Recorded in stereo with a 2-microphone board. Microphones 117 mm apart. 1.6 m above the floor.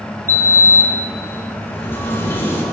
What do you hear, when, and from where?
0.3 s a sliding door: 20° left (ahead or behind), 3.5 m